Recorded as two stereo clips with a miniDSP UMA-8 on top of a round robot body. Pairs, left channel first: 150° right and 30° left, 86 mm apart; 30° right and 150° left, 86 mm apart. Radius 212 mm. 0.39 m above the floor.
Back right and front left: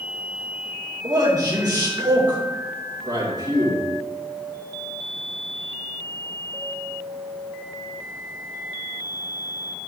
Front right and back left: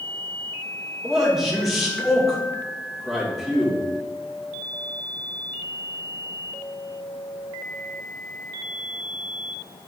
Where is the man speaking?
60° left, 2.5 m.